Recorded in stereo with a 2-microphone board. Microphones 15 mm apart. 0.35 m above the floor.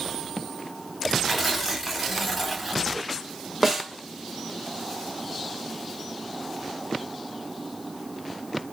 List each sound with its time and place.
1.3 s tearing paper: 5° right (ahead or behind), 0.9 m
3.6 s a snare drum: 5° right (ahead or behind), 0.9 m